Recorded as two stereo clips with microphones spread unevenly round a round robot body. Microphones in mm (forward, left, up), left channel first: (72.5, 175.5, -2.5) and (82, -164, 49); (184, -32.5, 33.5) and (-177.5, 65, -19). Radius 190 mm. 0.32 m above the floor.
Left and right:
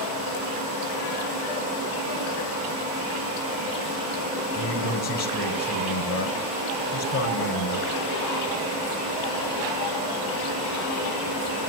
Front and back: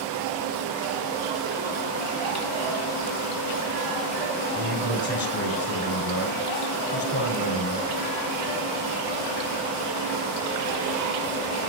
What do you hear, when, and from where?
4.5 s a man speaking: 50° left, 6 m